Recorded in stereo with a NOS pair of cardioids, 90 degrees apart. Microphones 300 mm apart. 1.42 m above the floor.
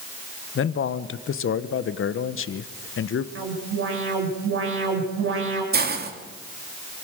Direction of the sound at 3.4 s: 45° right.